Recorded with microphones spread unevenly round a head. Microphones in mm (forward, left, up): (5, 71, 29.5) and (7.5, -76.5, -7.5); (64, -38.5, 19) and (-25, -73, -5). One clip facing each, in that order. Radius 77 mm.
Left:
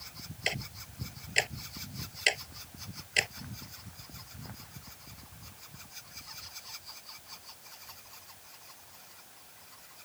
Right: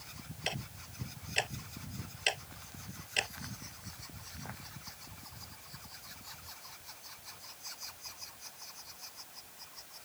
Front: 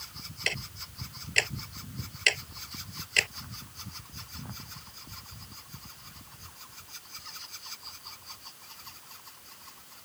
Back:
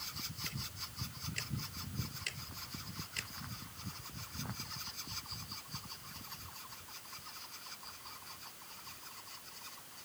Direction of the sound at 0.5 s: 25° left.